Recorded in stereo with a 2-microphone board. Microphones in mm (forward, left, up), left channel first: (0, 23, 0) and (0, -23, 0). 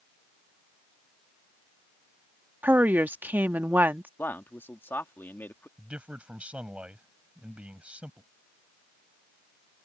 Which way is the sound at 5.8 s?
25° right (ahead or behind).